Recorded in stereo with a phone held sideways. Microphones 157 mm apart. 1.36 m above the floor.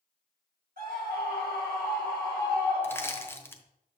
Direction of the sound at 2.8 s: 15° left (ahead or behind).